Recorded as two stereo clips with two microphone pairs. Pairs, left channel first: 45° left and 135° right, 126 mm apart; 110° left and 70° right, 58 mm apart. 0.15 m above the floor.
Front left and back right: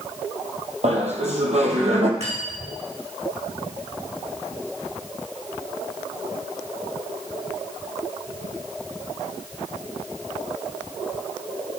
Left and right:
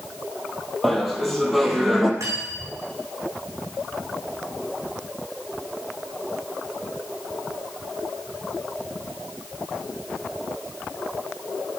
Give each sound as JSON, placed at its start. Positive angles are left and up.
{"t": 0.8, "sound": "laughter", "azimuth_deg": -165, "distance_m": 4.0}
{"t": 2.2, "sound": "cutlery clinking", "azimuth_deg": -105, "distance_m": 6.5}